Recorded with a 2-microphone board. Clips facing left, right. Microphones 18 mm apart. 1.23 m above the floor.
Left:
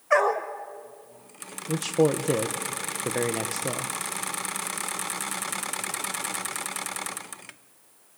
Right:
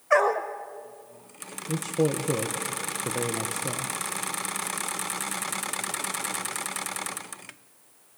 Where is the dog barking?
Centre (ahead or behind), 1.1 m.